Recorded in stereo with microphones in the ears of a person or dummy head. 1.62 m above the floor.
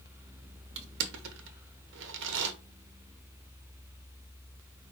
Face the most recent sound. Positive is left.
turn(degrees=-70)  # may be behind; listen again after turning